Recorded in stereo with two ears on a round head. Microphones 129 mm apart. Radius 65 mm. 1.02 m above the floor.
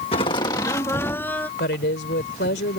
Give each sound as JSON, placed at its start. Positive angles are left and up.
{"t": 0.1, "sound": "laughter", "side_deg": 40}
{"t": 1.6, "sound": "a woman speaking", "side_deg": 85}